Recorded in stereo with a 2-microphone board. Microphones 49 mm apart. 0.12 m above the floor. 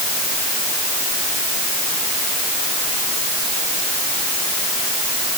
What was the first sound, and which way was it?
Only background noise.